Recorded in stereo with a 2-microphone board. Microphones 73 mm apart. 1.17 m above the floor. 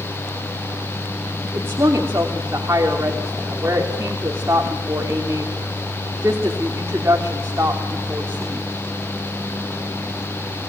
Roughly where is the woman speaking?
Right.